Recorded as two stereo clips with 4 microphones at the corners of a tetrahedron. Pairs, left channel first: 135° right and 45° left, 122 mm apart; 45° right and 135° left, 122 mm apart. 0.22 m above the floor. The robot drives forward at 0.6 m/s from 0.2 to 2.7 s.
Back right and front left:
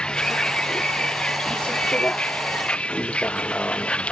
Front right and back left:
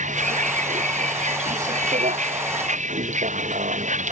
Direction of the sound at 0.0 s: 140° left.